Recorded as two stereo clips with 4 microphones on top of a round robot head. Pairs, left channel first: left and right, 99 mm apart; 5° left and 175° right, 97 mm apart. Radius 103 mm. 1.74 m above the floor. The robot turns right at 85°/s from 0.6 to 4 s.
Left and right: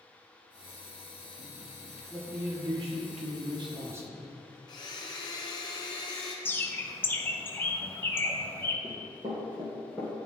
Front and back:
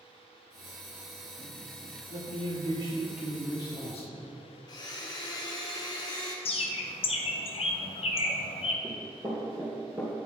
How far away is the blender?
About 0.9 m.